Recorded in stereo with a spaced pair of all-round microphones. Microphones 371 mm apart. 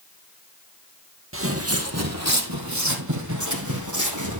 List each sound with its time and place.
1.3 s footsteps: 35° right (ahead or behind), 2.0 m; by 4.4 s 50° right (ahead or behind), 3.5 m